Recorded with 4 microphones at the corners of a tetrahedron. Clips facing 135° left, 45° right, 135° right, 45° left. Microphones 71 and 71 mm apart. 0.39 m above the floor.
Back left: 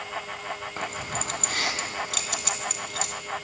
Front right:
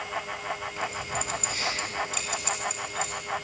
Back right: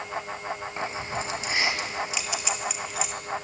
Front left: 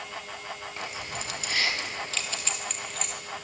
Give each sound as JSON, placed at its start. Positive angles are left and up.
{"t": 0.8, "sound": "keys jangling", "azimuth_deg": 165, "distance_m": 3.0}